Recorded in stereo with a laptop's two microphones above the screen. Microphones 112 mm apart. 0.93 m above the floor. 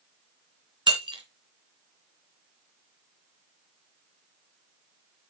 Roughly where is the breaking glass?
Right.